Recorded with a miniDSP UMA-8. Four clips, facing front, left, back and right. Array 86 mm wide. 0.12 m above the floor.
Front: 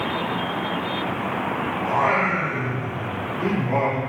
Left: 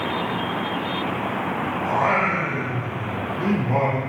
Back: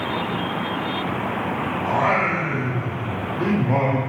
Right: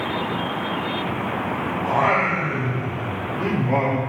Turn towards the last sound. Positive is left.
turn(degrees=-100)